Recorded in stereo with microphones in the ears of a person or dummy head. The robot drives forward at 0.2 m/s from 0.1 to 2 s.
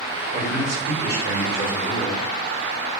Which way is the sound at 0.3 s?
25° left (ahead or behind).